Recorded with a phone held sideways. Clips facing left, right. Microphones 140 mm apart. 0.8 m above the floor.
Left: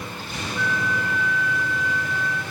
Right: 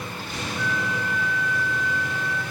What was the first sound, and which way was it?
A flute, 70° left (ahead or behind).